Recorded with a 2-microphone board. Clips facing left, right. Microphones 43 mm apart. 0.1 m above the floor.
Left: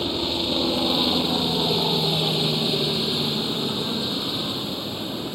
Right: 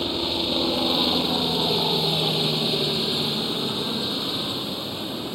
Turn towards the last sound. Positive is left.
turn(degrees=0)  # may be behind; listen again after turning